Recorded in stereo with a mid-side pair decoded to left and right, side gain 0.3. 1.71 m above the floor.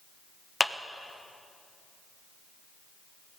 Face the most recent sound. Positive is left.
turn(degrees=25)